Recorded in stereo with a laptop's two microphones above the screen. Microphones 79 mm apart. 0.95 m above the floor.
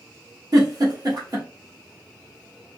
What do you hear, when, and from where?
0.5 s a giggle: 45° right (ahead or behind), 1.0 m